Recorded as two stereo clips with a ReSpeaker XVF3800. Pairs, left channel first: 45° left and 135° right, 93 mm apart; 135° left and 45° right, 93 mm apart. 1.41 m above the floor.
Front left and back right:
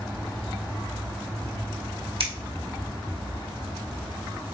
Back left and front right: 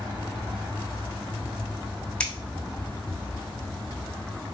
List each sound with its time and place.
2.2 s scissors: 145° right, 1.0 m